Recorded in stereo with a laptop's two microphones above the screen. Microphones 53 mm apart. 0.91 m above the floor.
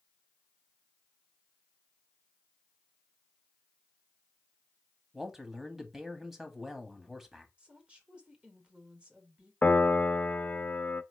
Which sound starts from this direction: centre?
A man speaking, at 5.1 s.